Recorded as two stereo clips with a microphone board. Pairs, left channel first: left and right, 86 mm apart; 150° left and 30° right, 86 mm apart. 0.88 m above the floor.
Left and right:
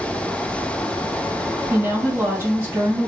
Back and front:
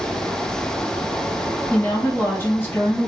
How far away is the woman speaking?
About 1.4 m.